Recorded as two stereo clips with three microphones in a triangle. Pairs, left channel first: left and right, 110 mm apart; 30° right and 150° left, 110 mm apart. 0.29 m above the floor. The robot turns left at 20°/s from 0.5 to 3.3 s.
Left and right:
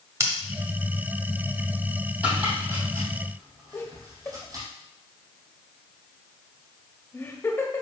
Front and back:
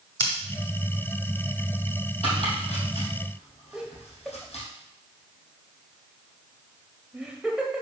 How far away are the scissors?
About 1.2 m.